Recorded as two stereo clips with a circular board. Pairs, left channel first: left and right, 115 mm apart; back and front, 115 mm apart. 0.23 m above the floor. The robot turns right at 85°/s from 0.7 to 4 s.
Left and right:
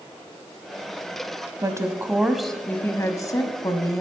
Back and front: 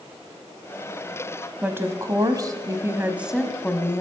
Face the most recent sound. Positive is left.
turn(degrees=135)